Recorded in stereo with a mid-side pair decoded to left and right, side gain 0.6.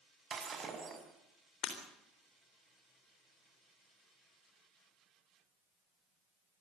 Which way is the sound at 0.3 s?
35° right.